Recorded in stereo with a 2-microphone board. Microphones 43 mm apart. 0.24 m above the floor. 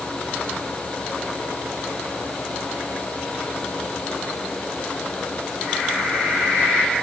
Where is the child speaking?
I don't hear a child speaking.